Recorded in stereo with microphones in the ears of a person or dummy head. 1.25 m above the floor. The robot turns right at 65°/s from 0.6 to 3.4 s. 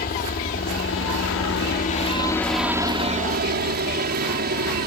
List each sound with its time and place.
0.0 s a helicopter: 50° left; by 4.9 s 125° right